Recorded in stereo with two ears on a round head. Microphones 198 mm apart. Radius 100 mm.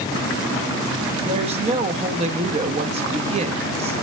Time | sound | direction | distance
1.2 | a woman speaking | 25° right (ahead or behind) | 1.0 m